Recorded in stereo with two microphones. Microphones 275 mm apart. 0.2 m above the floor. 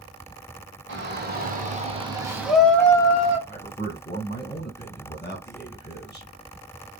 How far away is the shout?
About 1.5 m.